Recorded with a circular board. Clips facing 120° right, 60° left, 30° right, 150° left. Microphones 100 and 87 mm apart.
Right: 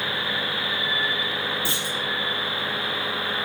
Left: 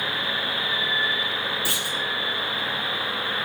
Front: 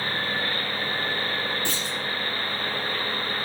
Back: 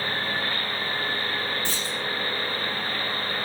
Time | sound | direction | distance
1.6 | a clunk | 55° right | 4.5 m